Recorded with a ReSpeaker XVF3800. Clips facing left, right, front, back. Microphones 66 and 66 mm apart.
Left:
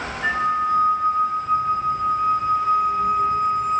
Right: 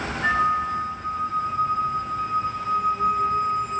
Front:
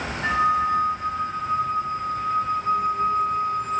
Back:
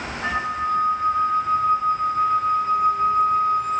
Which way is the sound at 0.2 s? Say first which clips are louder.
Left 1 dB, front 4 dB; 165° left.